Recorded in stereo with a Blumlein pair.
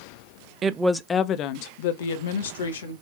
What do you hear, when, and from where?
0.6 s a woman speaking: 25° right, 0.7 m; by 2.9 s 65° left, 2.0 m